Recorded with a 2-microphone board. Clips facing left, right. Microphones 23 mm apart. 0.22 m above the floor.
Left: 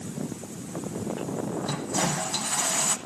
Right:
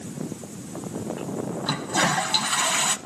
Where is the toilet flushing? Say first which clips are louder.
Right 7 dB; 45° right (ahead or behind), 0.8 m.